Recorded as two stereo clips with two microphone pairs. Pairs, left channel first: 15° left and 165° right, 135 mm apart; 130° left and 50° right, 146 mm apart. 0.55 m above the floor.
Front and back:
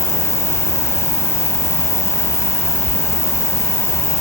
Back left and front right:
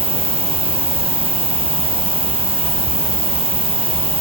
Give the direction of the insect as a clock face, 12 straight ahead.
3 o'clock.